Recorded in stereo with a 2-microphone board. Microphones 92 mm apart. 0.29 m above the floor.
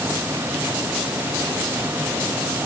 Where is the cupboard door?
No cupboard door in this recording.